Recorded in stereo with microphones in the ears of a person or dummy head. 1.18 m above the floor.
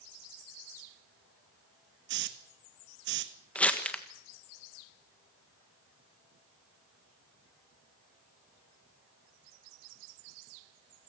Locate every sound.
2.1 s a hiss: 55° right (ahead or behind), 1.3 m
3.5 s crumpling: 5° left (ahead or behind), 1.5 m